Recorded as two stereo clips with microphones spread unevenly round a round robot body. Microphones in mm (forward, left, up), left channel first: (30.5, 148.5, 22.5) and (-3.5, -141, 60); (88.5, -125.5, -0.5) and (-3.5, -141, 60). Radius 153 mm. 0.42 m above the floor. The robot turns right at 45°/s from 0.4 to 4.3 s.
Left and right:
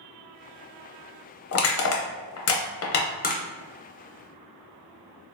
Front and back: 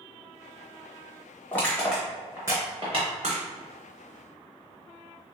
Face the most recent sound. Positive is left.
turn(degrees=180)